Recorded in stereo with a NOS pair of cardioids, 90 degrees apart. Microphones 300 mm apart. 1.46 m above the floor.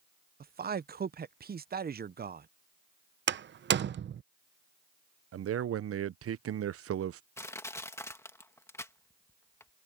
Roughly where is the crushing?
Ahead.